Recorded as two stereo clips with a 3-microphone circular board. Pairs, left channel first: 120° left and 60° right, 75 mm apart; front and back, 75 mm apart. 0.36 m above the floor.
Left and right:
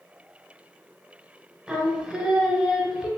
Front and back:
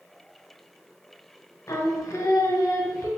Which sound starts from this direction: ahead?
Singing, at 1.7 s.